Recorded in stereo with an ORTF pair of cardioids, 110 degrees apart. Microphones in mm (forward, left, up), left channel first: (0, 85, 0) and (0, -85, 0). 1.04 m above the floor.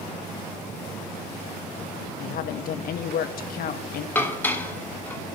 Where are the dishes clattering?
10° left, 1.7 m.